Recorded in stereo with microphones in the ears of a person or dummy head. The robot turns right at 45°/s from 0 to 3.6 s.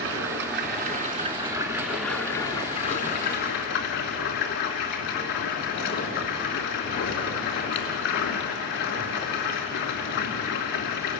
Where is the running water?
90° right, 2.5 m; by 11.2 s 70° left, 2.5 m.